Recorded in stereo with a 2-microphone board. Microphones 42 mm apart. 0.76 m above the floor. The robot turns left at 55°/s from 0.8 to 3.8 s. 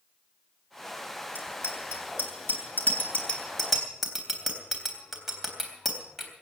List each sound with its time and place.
1.4 s a bicycle bell: 50° left (ahead or behind), 3.5 m; by 6.3 s 5° right (ahead or behind), 3.5 m